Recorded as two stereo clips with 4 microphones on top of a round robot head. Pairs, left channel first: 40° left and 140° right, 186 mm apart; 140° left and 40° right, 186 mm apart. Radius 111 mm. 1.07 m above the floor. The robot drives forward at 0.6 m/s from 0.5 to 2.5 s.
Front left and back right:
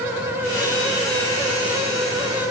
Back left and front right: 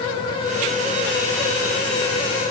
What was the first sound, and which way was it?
Only background noise.